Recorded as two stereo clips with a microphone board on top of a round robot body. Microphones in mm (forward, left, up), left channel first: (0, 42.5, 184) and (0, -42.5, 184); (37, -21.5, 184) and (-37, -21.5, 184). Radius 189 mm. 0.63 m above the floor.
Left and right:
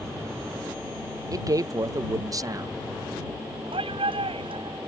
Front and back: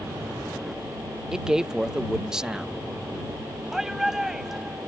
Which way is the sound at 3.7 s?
95° right.